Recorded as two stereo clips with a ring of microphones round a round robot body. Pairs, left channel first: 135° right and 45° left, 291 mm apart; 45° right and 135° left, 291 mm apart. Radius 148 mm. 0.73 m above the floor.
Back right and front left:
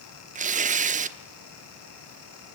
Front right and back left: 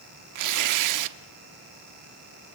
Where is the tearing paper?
110° left, 1.0 m.